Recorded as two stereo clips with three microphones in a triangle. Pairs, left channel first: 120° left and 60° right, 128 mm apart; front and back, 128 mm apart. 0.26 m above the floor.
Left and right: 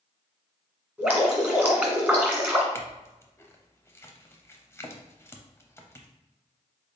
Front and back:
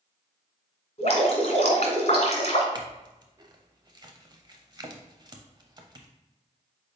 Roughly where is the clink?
Behind.